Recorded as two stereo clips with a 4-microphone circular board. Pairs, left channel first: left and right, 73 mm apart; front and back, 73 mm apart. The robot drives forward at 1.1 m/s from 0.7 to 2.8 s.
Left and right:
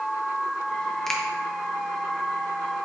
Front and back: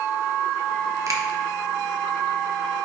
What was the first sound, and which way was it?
A finger snap, 175° left.